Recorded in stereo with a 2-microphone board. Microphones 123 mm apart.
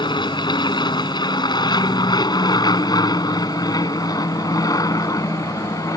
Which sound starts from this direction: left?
An aircraft, at 0.0 s.